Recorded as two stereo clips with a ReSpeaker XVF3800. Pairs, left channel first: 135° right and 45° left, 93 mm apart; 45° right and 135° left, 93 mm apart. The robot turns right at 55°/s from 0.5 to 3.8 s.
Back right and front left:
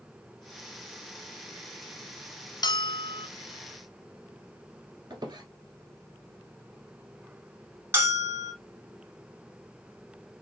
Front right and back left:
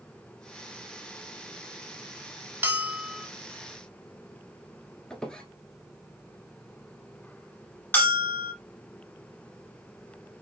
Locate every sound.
2.6 s a bell: 160° right, 0.7 m; by 3.3 s 125° right, 0.7 m
5.1 s a squeak: 35° left, 1.3 m
7.9 s a bell: 10° left, 1.5 m